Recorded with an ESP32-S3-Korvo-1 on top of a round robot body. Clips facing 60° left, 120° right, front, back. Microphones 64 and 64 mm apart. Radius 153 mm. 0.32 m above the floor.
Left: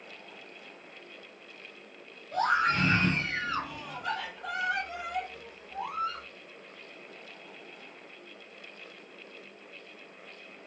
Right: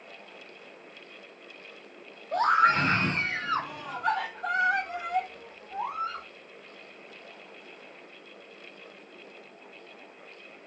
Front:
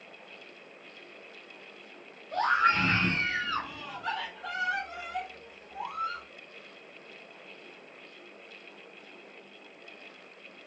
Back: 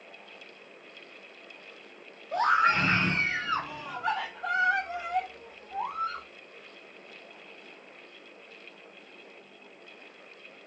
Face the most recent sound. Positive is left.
turn(degrees=-160)